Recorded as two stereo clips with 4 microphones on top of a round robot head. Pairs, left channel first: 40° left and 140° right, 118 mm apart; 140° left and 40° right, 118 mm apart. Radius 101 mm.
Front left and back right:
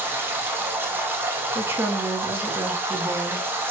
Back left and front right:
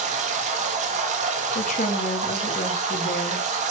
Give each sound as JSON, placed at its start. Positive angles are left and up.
{"t": 0.0, "sound": "running water", "azimuth_deg": -65, "distance_m": 1.6}
{"t": 1.6, "sound": "a woman speaking", "azimuth_deg": 150, "distance_m": 1.5}